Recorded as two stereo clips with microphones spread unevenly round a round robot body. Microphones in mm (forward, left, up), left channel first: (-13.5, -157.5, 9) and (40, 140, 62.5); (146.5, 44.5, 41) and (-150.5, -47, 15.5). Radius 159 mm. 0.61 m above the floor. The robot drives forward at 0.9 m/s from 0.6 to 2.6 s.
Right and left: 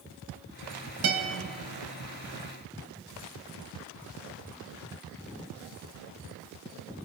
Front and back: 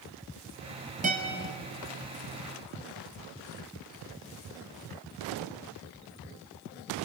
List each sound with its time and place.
1.0 s a guitar: 130° left, 2.5 m; by 1.3 s 135° left, 3 m